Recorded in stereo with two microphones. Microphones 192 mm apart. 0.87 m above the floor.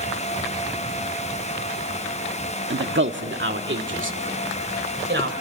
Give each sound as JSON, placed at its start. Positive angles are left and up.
{"t": 2.7, "sound": "a man speaking", "side_deg": -75, "distance_m": 1.3}